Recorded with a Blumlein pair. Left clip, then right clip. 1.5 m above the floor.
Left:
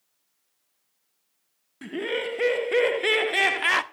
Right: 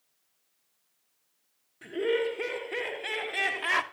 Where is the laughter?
65° left, 1.4 m; by 3.8 s 20° left, 0.6 m.